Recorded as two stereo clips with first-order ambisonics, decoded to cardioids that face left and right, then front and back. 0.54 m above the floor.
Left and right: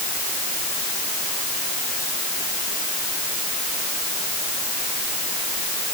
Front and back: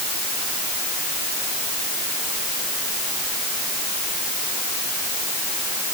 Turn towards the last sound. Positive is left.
No sound to turn to.